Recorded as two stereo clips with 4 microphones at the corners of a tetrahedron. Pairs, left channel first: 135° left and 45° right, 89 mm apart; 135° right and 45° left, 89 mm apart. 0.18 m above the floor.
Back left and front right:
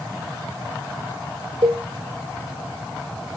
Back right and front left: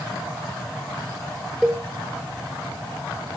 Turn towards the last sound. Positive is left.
turn(degrees=-40)